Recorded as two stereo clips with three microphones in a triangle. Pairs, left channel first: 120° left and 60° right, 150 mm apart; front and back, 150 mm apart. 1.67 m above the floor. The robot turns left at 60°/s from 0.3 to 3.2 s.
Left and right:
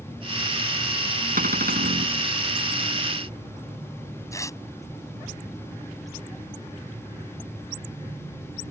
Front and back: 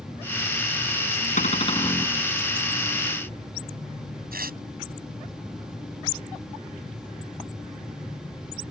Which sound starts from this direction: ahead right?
A cupboard door, at 1.4 s.